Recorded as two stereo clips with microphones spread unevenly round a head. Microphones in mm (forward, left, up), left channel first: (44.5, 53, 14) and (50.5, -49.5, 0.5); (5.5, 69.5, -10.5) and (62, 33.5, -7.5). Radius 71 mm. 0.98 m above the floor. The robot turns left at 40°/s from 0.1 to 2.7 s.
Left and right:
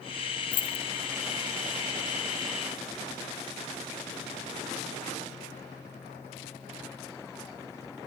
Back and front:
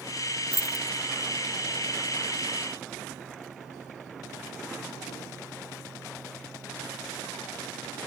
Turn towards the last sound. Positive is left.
turn(degrees=20)